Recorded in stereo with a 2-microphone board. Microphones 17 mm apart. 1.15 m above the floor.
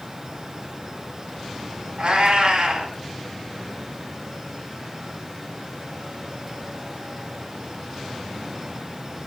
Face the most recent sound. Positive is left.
turn(degrees=-60)  # may be behind; listen again after turning